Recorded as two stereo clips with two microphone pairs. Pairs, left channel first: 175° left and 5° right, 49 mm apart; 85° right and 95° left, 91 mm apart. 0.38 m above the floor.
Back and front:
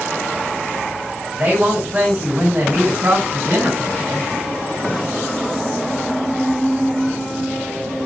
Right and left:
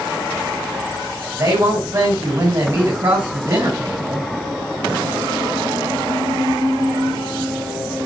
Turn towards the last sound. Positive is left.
turn(degrees=55)